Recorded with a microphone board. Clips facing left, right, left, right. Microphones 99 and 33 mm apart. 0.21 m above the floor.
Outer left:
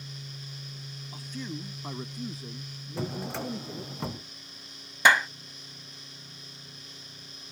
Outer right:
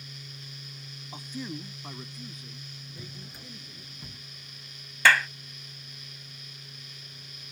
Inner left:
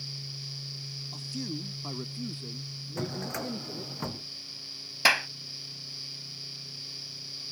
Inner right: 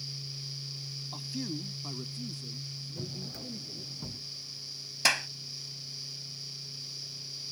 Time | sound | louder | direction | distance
1.1 | a man speaking | outer right 1 dB, even | 25° right (ahead or behind) | ?
3.0 | a drawer | outer left 16 dB, inner left 9 dB | 85° left | ?
5.0 | a clap | outer left 1 dB, inner left 4 dB | 20° left (ahead or behind) | ?